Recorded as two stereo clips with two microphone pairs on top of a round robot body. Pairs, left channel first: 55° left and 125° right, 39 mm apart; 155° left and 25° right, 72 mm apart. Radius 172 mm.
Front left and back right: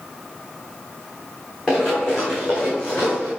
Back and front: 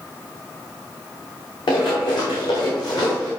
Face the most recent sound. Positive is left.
turn(degrees=120)